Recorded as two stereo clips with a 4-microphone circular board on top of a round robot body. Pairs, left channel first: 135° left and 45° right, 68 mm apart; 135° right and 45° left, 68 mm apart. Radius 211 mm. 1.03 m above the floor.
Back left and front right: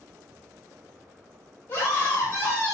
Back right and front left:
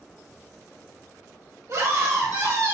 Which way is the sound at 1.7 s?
80° left.